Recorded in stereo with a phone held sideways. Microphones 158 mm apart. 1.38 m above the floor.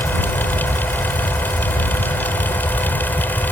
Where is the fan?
10° left (ahead or behind).